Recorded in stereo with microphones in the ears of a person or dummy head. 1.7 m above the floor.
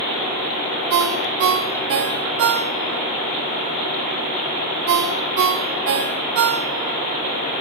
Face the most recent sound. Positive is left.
turn(degrees=-55)  # may be behind; listen again after turning